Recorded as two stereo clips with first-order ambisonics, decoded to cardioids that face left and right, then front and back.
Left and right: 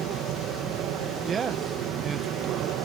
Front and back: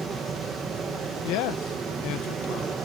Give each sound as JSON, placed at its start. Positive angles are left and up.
{"t": 0.0, "sound": "an aircraft", "azimuth_deg": -110}
{"t": 1.2, "sound": "a man speaking", "azimuth_deg": -25}